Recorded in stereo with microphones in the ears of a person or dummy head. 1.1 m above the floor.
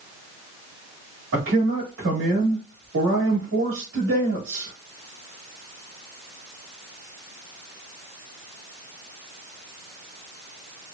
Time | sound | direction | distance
1.3 | a man speaking | 60° right (ahead or behind) | 1.5 m